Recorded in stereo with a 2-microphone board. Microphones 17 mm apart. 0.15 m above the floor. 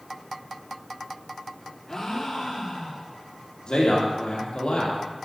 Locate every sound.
1.9 s a gasp: 30° left (ahead or behind), 3 m
3.7 s a man speaking: 70° left (ahead or behind), 4 m